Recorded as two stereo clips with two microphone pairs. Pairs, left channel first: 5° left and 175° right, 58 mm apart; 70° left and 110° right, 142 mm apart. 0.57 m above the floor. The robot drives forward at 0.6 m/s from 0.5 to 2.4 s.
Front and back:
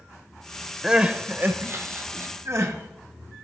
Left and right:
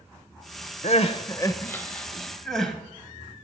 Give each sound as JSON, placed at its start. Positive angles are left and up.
{"t": 0.8, "sound": "crying", "azimuth_deg": 100, "distance_m": 0.5}